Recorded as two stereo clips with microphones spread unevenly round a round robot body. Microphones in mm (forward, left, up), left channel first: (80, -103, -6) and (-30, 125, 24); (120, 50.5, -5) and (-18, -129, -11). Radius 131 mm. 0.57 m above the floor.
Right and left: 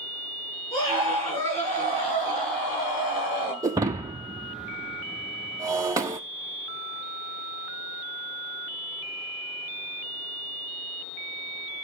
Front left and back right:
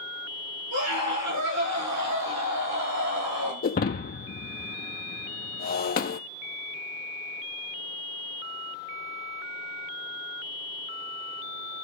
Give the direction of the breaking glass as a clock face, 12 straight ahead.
10 o'clock.